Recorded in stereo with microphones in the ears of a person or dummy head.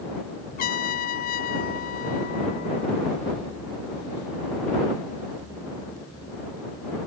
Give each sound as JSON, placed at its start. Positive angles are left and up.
{"t": 0.6, "sound": "a trumpet", "side_deg": 55}